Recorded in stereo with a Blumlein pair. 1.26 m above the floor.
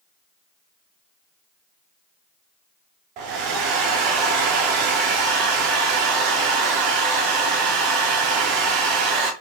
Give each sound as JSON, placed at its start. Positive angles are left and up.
{"t": 3.2, "sound": "a hair dryer", "azimuth_deg": -40, "distance_m": 0.7}